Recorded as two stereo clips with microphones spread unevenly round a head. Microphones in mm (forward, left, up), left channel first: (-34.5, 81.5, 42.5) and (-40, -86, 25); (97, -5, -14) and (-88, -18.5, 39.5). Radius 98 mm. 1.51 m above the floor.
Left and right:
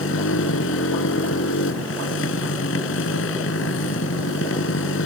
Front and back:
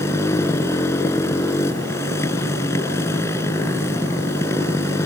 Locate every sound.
0.0 s a motorcycle: 85° left